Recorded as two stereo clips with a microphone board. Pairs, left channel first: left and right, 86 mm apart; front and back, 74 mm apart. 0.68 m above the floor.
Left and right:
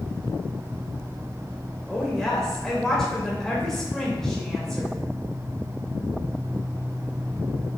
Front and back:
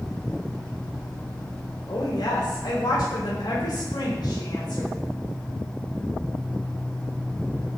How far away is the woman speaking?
About 3 m.